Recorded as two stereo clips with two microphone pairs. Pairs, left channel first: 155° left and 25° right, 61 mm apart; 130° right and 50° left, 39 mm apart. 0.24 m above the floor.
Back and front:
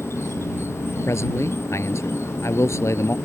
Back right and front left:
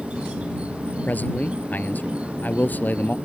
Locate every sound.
0.0 s an insect: 110° left
1.1 s a man speaking: 165° right